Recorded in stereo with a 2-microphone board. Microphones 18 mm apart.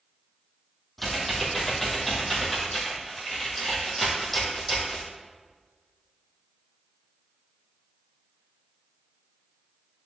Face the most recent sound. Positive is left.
turn(degrees=10)  # may be behind; listen again after turning